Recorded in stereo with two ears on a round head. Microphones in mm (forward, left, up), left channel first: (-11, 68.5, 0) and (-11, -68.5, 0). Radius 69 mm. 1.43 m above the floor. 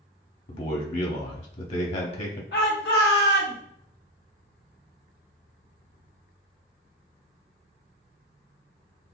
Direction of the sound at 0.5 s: 50° left (ahead or behind).